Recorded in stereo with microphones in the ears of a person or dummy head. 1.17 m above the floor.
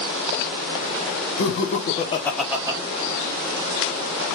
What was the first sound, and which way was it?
Laughter, 65° left (ahead or behind).